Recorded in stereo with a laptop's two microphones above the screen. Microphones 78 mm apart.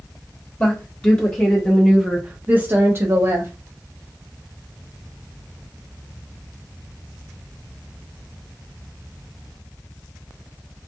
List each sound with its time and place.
0.6 s a woman speaking: 25° left (ahead or behind), 1.2 m; by 3.5 s 35° right (ahead or behind), 1.0 m